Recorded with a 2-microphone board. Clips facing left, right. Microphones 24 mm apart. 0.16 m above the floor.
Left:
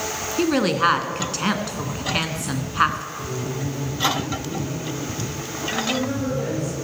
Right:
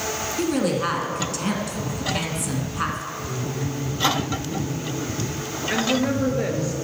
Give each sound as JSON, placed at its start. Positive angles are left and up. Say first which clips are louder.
{"t": 0.4, "sound": "a woman speaking", "louder": "left 4 dB", "side_deg": 35, "distance_m": 1.5}
{"t": 3.2, "sound": "laughter", "louder": "left 1 dB", "side_deg": 70, "distance_m": 5.5}
{"t": 5.7, "sound": "a woman speaking", "louder": "right 3 dB", "side_deg": -40, "distance_m": 3.0}